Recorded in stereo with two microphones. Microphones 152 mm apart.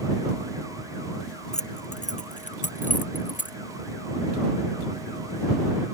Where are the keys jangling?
55° left (ahead or behind); by 3.6 s 65° left (ahead or behind).